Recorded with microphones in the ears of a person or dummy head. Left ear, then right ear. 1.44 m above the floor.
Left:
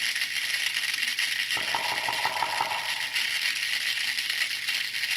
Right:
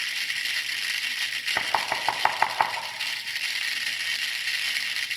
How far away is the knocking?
About 2.5 m.